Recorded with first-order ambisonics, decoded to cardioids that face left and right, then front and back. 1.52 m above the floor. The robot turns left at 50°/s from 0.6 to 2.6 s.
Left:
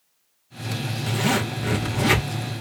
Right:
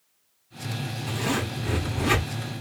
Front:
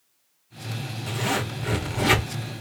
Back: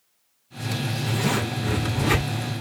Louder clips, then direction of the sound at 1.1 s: Left 5 dB, even; 100° left.